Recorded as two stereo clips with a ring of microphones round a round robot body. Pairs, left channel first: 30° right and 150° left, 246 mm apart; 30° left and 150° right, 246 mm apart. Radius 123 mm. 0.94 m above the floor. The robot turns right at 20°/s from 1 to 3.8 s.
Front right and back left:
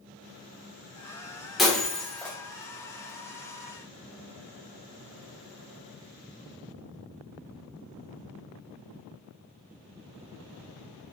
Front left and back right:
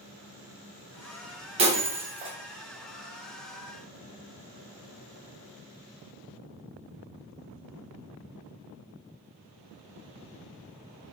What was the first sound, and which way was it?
Breaking glass, 120° right.